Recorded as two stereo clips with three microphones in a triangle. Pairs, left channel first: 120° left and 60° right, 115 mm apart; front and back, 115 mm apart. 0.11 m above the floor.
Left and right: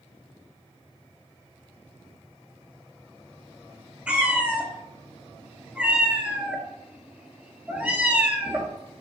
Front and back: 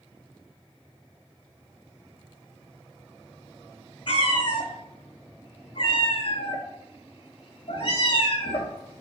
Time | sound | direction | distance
4.1 | a cat meowing | 20° left | 0.6 m